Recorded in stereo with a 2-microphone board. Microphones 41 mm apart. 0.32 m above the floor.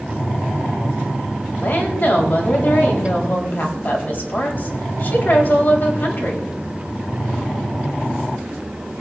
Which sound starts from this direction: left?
A woman speaking, at 1.6 s.